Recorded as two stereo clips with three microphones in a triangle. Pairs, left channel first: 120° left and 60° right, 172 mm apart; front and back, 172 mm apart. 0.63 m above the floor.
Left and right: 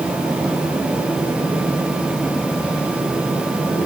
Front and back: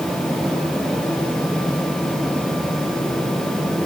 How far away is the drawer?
No drawer in this recording.